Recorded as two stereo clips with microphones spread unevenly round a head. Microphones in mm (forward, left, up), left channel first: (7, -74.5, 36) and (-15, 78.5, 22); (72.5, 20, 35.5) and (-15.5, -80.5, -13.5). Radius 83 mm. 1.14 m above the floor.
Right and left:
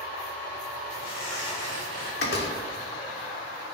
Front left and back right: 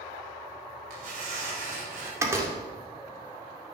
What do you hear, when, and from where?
0.9 s tearing paper: 120° right, 5.5 m
2.2 s a door slam: 60° right, 2 m